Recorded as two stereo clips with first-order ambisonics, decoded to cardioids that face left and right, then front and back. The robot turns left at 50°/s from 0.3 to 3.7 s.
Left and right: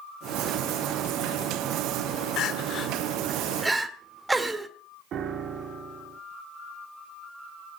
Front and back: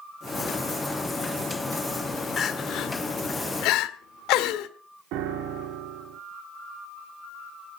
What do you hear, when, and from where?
2.4 s crying: 60° left, 1.4 m; by 4.7 s 5° right, 1.4 m
5.1 s a piano: 145° right, 1.9 m